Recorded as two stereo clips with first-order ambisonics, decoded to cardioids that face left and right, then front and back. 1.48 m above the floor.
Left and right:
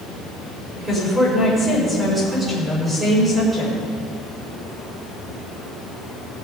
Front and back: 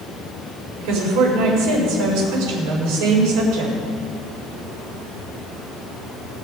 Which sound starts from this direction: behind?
A woman speaking, at 0.8 s.